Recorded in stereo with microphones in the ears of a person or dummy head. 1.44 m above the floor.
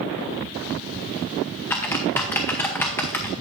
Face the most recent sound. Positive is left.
turn(degrees=10)  # may be behind; listen again after turning